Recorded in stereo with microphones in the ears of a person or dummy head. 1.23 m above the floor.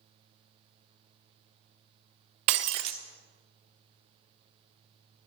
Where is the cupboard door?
No cupboard door in this recording.